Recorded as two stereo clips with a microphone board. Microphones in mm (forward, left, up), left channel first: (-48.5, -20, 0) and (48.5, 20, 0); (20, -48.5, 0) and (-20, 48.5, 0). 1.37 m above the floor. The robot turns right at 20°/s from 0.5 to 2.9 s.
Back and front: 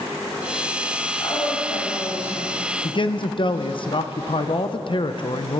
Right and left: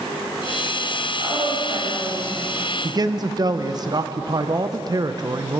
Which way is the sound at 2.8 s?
160° left.